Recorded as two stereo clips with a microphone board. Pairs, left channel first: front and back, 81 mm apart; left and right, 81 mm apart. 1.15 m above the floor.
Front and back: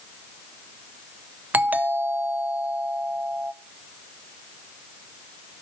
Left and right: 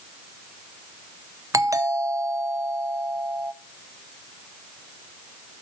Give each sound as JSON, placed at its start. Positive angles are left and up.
{"t": 1.5, "sound": "a doorbell", "azimuth_deg": -120, "distance_m": 0.8}